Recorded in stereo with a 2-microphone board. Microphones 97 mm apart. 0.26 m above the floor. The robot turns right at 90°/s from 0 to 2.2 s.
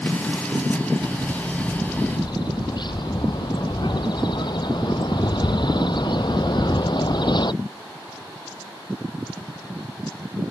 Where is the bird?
50° right; by 7.5 s 55° left.